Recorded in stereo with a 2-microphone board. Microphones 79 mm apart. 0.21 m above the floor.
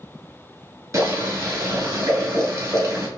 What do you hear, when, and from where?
0.9 s boiling: 50° right (ahead or behind), 1.8 m